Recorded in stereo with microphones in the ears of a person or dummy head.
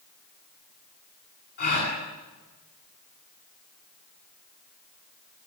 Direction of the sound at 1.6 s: 55° left (ahead or behind).